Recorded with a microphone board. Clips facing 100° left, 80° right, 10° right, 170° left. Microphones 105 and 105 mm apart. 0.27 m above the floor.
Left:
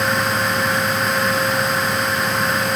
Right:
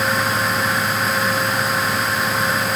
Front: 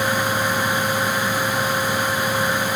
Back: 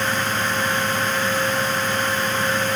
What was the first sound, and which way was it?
Only background noise.